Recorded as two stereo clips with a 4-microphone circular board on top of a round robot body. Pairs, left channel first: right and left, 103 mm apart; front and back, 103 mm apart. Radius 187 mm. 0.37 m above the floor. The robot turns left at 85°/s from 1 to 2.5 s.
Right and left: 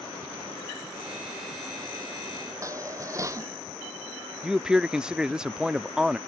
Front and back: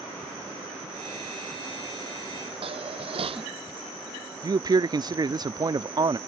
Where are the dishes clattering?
150° left.